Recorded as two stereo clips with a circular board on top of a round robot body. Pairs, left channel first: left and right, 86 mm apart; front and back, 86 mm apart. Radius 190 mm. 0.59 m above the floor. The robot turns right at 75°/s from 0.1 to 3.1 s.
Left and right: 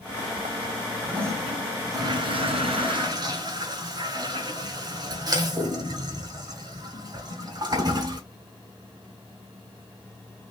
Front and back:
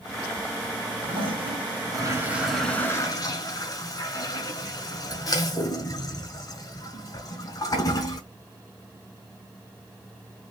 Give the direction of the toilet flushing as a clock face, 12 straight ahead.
7 o'clock.